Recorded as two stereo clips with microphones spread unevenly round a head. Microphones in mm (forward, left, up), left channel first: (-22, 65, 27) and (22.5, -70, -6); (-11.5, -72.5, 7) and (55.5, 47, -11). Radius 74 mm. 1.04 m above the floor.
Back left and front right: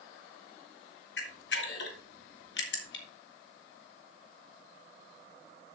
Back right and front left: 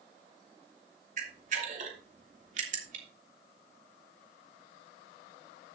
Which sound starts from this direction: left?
A camera shutter, at 1.2 s.